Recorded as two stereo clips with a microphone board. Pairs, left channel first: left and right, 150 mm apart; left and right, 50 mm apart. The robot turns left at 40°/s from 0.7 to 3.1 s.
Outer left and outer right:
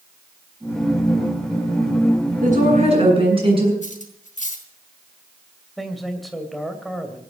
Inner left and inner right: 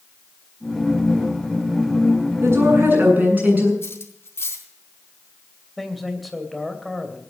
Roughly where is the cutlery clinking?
Left.